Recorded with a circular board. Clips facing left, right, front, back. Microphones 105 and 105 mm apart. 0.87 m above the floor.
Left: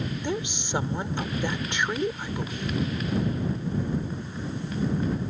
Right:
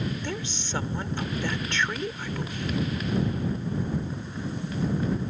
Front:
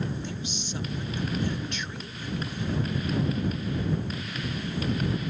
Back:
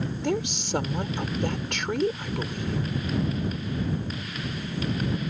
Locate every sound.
0.2 s a woman speaking: 165° left